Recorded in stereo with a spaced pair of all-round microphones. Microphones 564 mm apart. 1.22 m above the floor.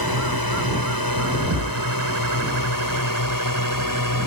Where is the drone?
40° left (ahead or behind); by 4.3 s 35° left (ahead or behind).